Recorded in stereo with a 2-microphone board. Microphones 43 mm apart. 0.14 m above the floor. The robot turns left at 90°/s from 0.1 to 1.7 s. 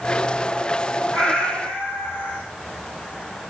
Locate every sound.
1.1 s a cat meowing: straight behind, 2.5 m; by 2.4 s 130° left, 2.5 m